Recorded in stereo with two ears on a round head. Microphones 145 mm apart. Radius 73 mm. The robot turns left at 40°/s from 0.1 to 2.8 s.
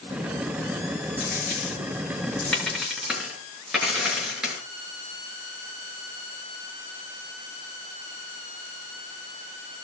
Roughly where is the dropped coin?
Left.